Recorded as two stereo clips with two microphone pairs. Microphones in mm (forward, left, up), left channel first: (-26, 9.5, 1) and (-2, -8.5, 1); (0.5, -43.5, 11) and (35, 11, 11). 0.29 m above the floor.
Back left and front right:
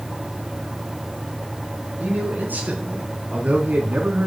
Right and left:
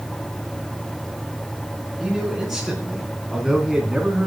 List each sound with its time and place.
2.0 s a man speaking: 25° right, 4.5 m